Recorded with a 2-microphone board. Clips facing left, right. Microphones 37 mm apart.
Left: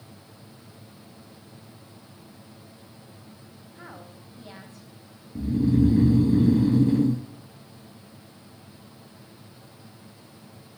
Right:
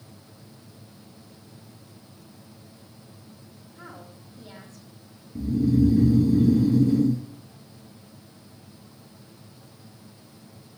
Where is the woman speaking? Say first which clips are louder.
Even; 25° left (ahead or behind), 1.5 m.